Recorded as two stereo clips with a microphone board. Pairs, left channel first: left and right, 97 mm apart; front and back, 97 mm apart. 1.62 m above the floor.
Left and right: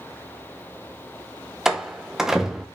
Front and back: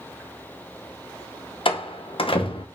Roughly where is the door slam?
Ahead.